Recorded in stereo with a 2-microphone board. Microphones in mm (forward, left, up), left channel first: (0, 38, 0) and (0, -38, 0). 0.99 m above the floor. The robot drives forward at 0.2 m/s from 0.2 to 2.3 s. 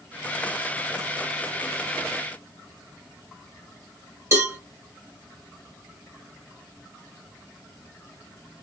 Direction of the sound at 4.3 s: 40° right (ahead or behind).